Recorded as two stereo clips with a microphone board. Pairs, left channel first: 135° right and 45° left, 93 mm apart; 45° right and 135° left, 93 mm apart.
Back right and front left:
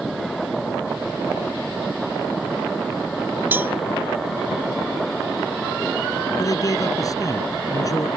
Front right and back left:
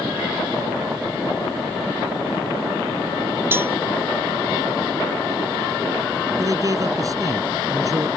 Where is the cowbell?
95° left.